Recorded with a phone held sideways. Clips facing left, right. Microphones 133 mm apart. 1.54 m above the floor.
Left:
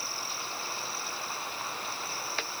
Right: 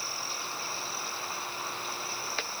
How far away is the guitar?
I don't hear a guitar.